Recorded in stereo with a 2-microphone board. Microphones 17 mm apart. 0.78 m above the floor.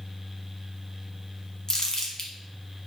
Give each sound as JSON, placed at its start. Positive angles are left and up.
{"t": 1.7, "sound": "crumpling", "side_deg": 40, "distance_m": 1.1}